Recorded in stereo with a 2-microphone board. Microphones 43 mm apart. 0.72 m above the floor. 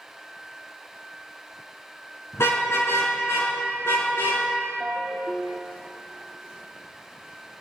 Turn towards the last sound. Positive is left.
turn(degrees=-20)  # may be behind; listen again after turning